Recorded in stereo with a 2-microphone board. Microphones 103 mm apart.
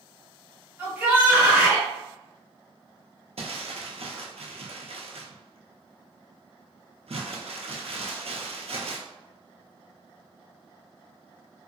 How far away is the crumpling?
About 0.6 m.